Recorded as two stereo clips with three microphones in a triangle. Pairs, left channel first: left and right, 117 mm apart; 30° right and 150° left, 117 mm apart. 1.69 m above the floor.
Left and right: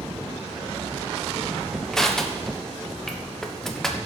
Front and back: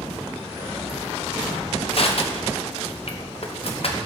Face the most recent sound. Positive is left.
turn(degrees=5)